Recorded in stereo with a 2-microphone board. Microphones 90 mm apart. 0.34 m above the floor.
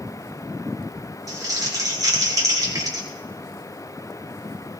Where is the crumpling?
45° right (ahead or behind), 4 m.